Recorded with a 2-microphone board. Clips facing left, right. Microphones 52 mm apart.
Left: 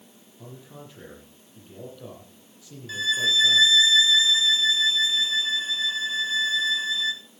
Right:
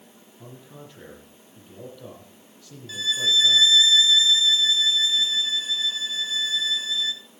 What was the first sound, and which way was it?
A man speaking, 5° left (ahead or behind).